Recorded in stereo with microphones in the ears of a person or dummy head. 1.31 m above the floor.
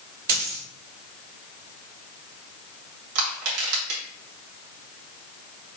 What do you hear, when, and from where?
0.3 s a dropped coin: 50° right (ahead or behind), 2.0 m
3.1 s crushing: 80° right, 1.6 m